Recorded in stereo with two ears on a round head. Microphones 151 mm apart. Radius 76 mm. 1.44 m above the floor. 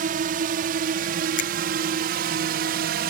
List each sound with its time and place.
0.0 s a drone: 50° right (ahead or behind); by 3.1 s 60° right (ahead or behind)
1.4 s a finger snap: 45° left (ahead or behind)